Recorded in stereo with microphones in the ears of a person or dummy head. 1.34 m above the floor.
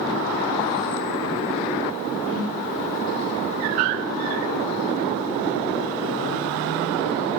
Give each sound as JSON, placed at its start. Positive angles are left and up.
{"t": 2.2, "sound": "a whoosh", "side_deg": 45, "distance_m": 2.5}